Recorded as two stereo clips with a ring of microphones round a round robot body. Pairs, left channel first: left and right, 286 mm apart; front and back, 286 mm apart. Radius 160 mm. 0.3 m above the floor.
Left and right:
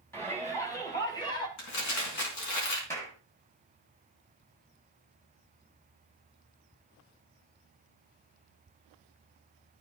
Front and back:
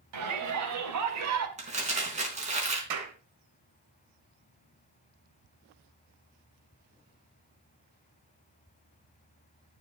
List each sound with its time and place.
0.1 s a shout: 170° left, 3.5 m; by 1.5 s 165° left, 2.5 m
1.6 s crumpling: 115° left, 4 m
2.9 s a clap: 170° left, 3 m